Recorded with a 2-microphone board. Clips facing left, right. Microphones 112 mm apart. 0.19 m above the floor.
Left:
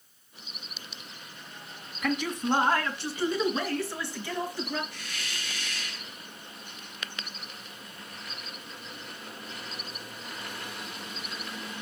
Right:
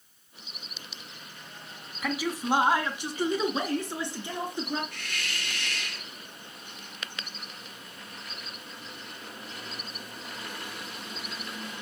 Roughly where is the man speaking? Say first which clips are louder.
Left 1 dB; centre.